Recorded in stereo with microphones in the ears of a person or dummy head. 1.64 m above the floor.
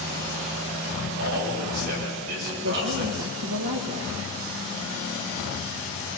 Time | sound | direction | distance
1.2 | a man speaking | 65° right (ahead or behind) | 8.5 m
2.6 | a woman speaking | 75° right (ahead or behind) | 1.6 m